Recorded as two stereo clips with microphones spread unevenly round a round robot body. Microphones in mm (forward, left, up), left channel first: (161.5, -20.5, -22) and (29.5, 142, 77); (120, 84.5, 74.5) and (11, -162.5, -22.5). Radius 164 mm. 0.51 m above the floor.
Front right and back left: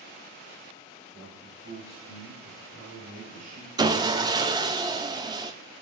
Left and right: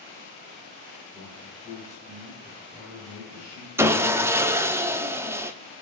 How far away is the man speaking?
About 3.5 m.